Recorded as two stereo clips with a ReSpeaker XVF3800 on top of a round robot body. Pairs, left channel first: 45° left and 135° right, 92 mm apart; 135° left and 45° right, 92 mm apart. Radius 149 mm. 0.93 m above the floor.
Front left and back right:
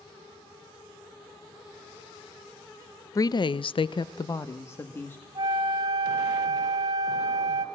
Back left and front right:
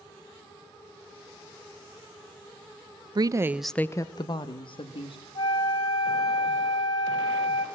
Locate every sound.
3.1 s a woman speaking: 5° right, 0.9 m; by 5.2 s 115° left, 2 m
5.3 s a flute: 175° left, 1.5 m